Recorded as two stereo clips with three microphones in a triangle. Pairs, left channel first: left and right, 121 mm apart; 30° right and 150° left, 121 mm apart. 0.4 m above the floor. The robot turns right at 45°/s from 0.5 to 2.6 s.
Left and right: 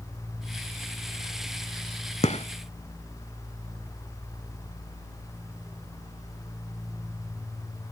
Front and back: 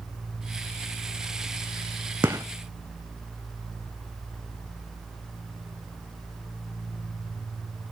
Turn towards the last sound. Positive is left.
turn(degrees=95)